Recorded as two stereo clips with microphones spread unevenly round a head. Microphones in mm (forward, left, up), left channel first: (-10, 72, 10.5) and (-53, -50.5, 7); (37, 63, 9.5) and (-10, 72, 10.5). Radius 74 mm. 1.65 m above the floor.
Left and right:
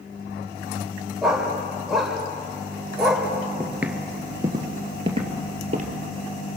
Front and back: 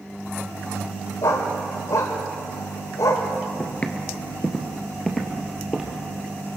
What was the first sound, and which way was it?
A dog barking, 20° right.